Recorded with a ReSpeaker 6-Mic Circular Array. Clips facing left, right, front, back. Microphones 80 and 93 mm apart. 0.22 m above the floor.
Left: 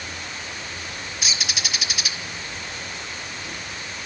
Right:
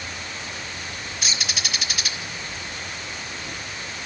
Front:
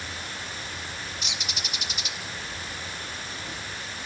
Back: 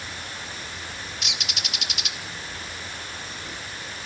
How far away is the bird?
About 0.8 m.